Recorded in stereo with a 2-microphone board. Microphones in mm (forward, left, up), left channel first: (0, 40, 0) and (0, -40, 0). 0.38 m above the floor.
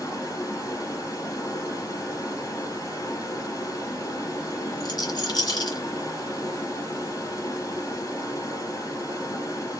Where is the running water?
50° left (ahead or behind), 1.9 m.